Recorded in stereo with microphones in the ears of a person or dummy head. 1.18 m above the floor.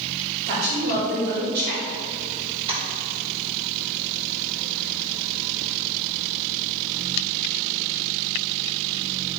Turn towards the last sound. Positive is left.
turn(degrees=-30)  # may be behind; listen again after turning